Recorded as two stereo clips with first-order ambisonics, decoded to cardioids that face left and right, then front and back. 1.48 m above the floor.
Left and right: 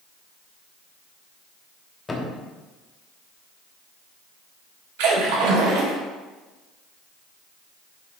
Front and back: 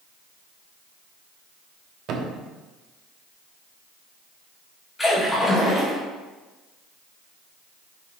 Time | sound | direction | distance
2.1 | a thud | 160° left | 1.2 m
5.0 | a splash | 85° right | 2.5 m